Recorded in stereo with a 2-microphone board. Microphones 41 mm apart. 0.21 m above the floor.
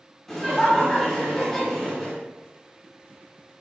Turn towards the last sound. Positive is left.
turn(degrees=10)  # may be behind; listen again after turning